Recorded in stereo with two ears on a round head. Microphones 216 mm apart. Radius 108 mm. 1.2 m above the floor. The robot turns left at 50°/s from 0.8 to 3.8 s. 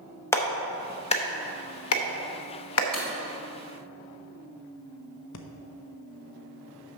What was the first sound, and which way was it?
A clap, 10° left (ahead or behind).